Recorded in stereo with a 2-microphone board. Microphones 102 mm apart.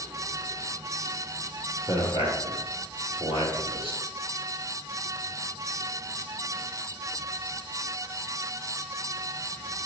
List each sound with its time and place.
1.9 s a man speaking: 55° right (ahead or behind), 2.5 m